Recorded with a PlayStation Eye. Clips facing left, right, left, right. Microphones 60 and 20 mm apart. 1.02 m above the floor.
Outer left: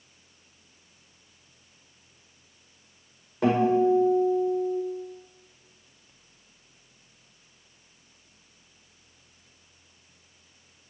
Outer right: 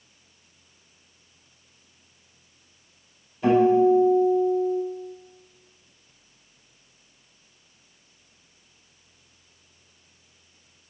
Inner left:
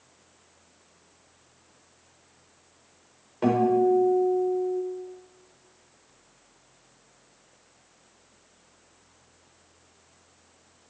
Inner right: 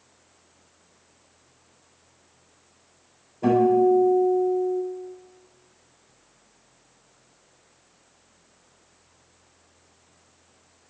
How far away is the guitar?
About 4.5 m.